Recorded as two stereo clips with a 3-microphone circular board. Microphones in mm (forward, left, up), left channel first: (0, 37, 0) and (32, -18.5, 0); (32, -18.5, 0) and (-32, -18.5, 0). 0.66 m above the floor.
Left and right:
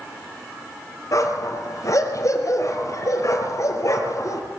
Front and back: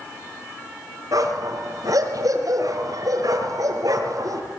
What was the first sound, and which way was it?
A dog barking, 155° left.